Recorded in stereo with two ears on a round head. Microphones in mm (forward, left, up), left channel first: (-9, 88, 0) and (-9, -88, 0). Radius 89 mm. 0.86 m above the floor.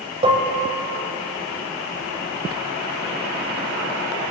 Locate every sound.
0.2 s dishes clattering: 30° right (ahead or behind), 3 m